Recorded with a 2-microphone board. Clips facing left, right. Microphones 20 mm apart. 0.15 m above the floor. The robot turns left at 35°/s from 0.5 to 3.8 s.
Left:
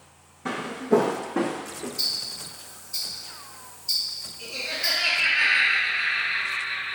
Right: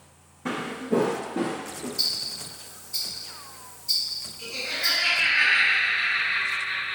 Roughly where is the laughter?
Centre.